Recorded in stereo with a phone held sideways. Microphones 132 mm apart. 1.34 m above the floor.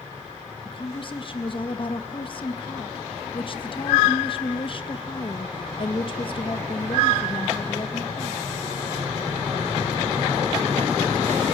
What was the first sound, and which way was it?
A woman speaking, 40° left (ahead or behind).